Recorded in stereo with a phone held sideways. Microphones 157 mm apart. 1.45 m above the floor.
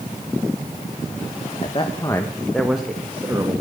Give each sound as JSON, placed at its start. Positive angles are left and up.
{"t": 1.6, "sound": "a man speaking", "side_deg": 40, "distance_m": 1.3}